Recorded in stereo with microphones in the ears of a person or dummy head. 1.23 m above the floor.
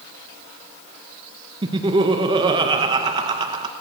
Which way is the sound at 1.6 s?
25° right (ahead or behind).